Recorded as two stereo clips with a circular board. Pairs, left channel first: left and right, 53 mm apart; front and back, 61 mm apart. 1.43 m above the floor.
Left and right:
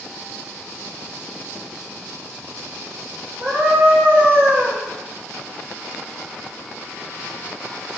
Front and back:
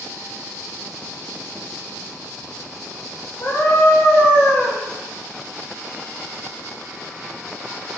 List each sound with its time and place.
3.4 s a scream: 40° right, 3.5 m; by 4.8 s 45° right, 2.5 m